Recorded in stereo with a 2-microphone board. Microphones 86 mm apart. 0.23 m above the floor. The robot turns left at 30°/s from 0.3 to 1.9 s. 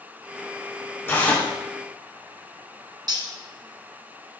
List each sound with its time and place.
1.1 s tearing paper: 30° left (ahead or behind), 4.5 m; by 1.5 s 15° left (ahead or behind), 4.5 m
3.1 s cutlery clinking: 55° right (ahead or behind), 1.5 m